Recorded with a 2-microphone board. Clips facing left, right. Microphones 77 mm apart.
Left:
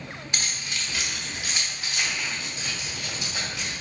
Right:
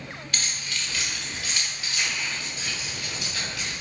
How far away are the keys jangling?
About 1.2 m.